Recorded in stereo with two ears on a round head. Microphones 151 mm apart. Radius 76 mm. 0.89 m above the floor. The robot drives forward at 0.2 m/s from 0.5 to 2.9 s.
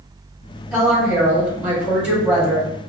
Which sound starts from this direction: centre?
A woman speaking, at 0.7 s.